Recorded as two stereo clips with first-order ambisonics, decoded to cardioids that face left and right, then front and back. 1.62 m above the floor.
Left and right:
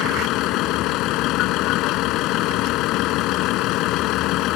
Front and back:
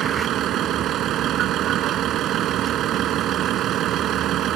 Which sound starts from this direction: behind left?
A vehicle, at 0.0 s.